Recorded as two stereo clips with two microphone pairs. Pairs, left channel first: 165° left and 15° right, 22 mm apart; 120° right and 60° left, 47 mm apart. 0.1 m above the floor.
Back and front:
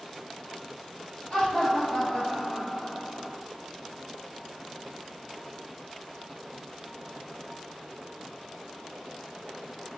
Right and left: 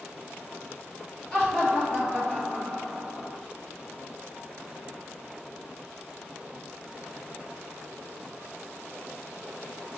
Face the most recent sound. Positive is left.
turn(degrees=80)